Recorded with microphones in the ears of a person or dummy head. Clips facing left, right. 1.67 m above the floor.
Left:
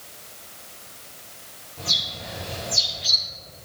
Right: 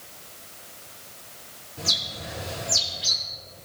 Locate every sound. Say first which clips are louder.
1.8 s a bird: even; 10° right (ahead or behind), 4 m